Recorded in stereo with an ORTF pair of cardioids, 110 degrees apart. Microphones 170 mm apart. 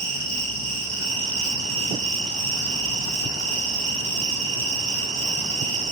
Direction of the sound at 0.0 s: 45° right.